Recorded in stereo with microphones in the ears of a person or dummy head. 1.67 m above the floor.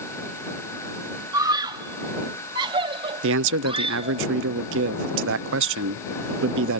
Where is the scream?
20° right (ahead or behind); by 4.2 s 30° right (ahead or behind).